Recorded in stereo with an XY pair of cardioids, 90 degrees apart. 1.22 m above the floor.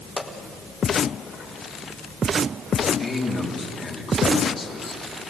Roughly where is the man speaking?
Ahead left.